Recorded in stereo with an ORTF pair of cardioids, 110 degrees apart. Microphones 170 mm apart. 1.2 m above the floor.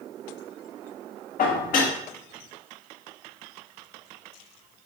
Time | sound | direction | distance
1.4 | dishes clattering | 55° left | 1.6 m